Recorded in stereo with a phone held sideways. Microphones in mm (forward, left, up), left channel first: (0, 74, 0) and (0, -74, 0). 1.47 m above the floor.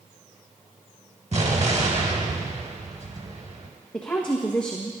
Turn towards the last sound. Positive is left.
turn(degrees=10)  # may be behind; listen again after turning